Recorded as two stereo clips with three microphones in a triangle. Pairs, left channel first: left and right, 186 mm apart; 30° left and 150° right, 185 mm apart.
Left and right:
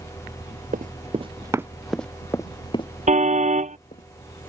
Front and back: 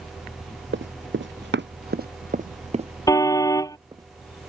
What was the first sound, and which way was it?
Running footsteps, 135° right.